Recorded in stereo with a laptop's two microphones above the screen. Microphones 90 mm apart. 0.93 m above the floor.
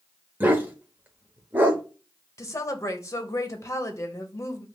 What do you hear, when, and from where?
0.4 s a dog barking: 20° right (ahead or behind), 0.8 m
2.4 s a woman speaking: 35° left (ahead or behind), 0.9 m